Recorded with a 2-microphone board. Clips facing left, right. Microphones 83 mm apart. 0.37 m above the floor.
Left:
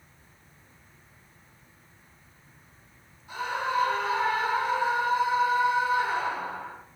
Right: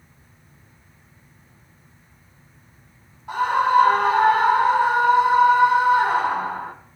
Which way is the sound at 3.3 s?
65° right (ahead or behind).